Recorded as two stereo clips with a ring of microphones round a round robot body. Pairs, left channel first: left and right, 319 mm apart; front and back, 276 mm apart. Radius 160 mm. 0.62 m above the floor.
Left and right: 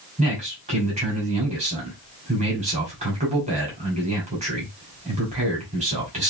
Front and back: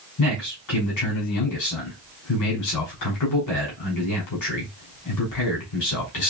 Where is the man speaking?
20° right, 2.5 m.